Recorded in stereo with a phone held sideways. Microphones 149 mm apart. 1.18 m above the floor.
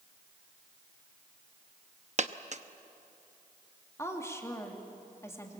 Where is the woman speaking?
20° left (ahead or behind), 2.5 m.